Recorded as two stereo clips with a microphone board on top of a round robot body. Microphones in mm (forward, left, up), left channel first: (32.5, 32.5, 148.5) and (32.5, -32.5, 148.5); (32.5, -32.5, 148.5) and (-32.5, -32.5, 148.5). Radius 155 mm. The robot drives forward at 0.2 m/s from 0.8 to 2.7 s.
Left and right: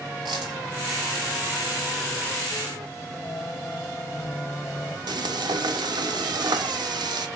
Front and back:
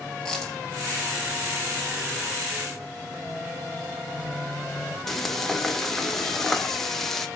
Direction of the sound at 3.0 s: 115° left.